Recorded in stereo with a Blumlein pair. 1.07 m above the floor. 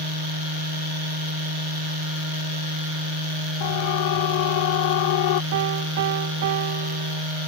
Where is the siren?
50° left.